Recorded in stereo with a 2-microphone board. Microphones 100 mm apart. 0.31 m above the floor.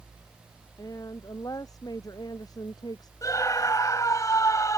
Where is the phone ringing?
I don't hear a phone ringing.